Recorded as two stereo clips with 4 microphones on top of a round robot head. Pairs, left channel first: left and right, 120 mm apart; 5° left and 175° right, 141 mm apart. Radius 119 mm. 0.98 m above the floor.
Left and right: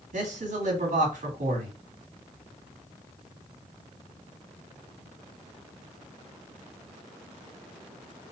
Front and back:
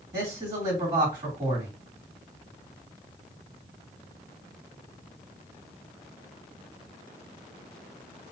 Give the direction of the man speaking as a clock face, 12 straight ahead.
4 o'clock.